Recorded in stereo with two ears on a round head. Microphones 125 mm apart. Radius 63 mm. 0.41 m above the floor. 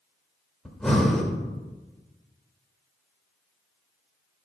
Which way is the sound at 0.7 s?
5° left (ahead or behind).